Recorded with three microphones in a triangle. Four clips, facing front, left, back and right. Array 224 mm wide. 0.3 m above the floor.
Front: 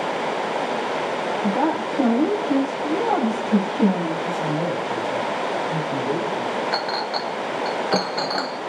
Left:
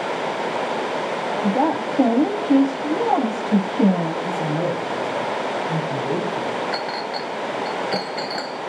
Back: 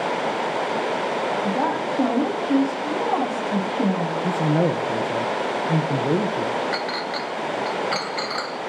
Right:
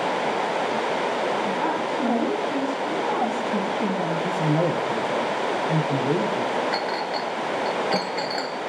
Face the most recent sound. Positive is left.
turn(degrees=0)